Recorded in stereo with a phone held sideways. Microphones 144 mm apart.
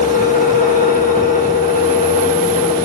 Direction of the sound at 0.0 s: 70° left (ahead or behind).